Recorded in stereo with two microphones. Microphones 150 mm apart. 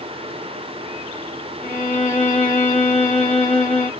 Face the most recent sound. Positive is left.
turn(degrees=60)  # may be behind; listen again after turning